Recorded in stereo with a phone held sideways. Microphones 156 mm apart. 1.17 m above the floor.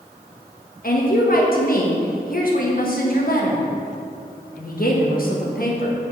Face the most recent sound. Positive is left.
turn(degrees=65)  # may be behind; listen again after turning